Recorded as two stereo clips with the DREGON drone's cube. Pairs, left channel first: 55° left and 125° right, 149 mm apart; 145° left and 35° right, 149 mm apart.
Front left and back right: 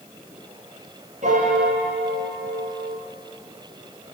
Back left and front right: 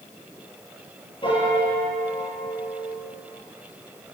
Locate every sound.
1.2 s a piano: 160° right, 8.5 m